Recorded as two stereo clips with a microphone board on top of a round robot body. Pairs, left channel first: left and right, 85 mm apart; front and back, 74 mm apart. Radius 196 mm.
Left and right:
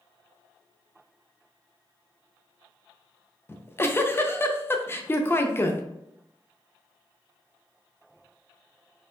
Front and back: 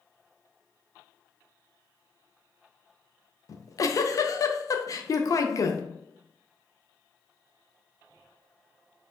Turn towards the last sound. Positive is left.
turn(degrees=30)